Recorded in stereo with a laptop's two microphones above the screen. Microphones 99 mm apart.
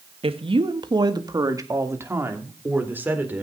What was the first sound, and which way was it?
A woman speaking, 65° right (ahead or behind).